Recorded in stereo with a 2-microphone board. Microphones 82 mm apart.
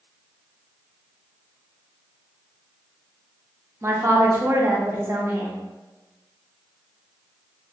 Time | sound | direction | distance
3.8 | a woman speaking | 30° right (ahead or behind) | 0.6 m